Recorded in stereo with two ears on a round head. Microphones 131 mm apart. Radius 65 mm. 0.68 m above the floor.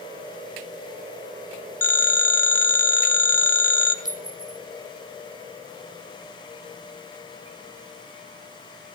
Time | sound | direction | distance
1.8 | a phone ringing | 15° left (ahead or behind) | 1.8 m
4.0 | a clink | 5° right (ahead or behind) | 2 m